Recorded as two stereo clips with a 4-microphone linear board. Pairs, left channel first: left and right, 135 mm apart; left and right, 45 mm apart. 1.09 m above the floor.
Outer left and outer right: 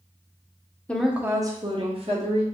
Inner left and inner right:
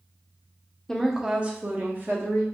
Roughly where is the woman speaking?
Centre.